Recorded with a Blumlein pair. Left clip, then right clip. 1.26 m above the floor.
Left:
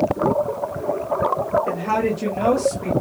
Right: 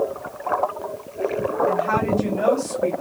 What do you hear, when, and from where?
1.7 s a woman speaking: 40° left, 1.5 m; by 2.9 s 15° left, 1.5 m